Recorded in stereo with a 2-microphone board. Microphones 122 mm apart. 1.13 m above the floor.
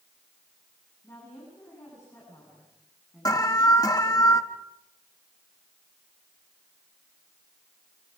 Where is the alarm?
30° left (ahead or behind), 1.3 m.